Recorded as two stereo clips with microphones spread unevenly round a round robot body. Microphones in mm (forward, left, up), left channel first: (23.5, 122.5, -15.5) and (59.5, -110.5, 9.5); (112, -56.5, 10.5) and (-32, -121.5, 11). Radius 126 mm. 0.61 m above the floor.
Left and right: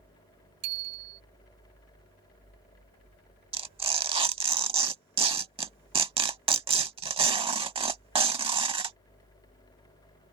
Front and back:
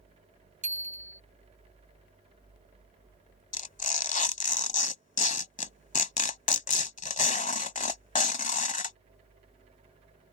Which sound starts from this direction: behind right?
A bicycle bell, at 0.6 s.